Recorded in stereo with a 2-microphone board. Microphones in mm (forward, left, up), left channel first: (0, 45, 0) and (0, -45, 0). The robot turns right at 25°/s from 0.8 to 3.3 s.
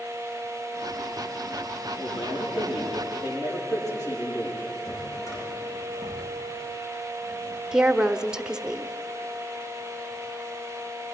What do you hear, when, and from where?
2.0 s a man speaking: 105° left, 9.5 m; by 4.7 s 135° left, 9.5 m
4.8 s a drawer: 40° left (ahead or behind), 9 m
7.7 s a woman speaking: 10° right (ahead or behind), 0.9 m